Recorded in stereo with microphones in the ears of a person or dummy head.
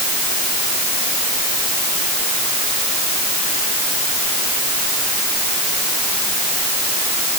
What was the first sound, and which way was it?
Only background noise.